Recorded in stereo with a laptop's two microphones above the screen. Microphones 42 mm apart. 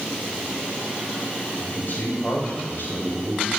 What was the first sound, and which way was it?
A man speaking, 50° left (ahead or behind).